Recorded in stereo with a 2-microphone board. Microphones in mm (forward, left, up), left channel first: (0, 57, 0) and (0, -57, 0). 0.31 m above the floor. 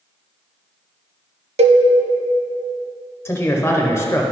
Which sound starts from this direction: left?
A man speaking, at 3.2 s.